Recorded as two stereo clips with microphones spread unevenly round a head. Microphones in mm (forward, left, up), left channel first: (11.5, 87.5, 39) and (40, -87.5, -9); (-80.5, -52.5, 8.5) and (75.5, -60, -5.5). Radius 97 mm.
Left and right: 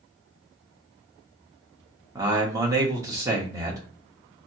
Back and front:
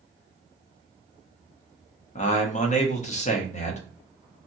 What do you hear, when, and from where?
2.1 s a man speaking: 140° right, 1.0 m